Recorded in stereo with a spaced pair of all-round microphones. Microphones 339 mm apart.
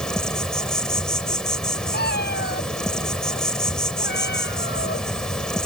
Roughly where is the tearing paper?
I don't hear tearing paper.